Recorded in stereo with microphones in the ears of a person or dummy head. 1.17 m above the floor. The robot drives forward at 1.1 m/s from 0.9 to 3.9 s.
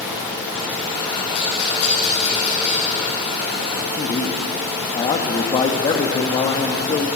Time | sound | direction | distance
1.3 | a rattle | 70° left (ahead or behind) | 9.5 m
4.0 | a man speaking | 30° left (ahead or behind) | 2.5 m